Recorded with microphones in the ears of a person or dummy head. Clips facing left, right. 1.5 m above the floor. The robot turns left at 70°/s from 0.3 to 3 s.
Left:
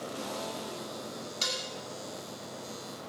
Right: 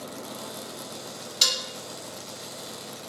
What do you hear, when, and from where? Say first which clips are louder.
1.4 s dishes clattering: right 4 dB; 55° right (ahead or behind), 3 m; by 1.6 s 70° right (ahead or behind), 3 m